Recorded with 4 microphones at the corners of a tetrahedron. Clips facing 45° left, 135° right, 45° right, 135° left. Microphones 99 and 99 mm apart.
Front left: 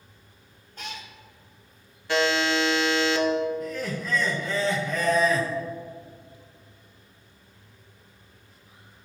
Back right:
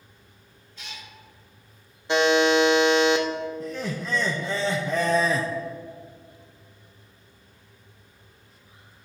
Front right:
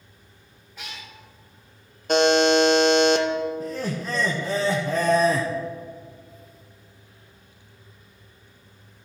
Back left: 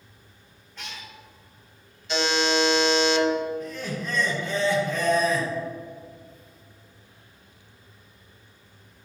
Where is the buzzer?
70° right, 0.7 m.